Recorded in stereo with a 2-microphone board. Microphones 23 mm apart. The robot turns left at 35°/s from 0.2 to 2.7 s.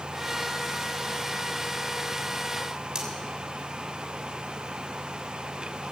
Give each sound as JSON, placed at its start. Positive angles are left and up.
{"t": 3.0, "sound": "cutlery clinking", "side_deg": -35, "distance_m": 3.0}